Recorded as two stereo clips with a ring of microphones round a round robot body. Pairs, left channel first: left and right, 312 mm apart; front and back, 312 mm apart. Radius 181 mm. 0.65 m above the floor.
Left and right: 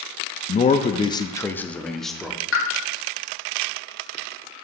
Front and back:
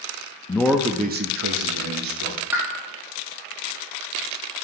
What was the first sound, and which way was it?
A man speaking, 65° left.